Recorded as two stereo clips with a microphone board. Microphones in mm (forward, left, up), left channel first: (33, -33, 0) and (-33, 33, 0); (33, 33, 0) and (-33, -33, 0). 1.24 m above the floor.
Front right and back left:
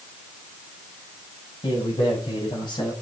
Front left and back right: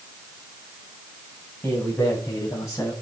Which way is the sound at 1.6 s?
30° right.